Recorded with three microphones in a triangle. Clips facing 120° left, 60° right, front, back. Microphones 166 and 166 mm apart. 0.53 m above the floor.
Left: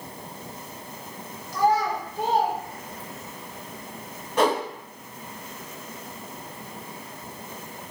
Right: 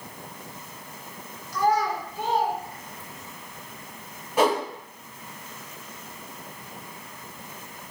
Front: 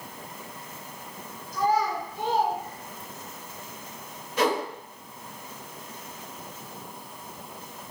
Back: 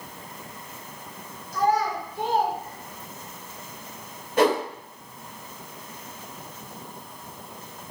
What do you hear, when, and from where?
1.5 s a child speaking: 175° right, 1.6 m; by 3.3 s 100° left, 1.1 m
4.4 s a whoosh: 145° right, 1.1 m